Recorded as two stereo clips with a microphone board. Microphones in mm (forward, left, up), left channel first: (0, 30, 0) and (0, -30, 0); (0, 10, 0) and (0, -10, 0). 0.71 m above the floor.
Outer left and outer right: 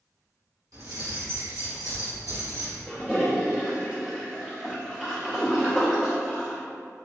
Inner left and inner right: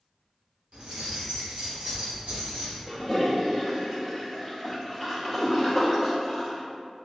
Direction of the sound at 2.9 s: 15° right (ahead or behind).